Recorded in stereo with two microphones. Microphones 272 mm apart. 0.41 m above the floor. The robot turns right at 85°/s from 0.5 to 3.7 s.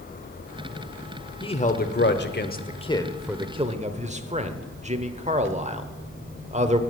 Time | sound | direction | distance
1.4 | a man speaking | 15° left (ahead or behind) | 1.0 m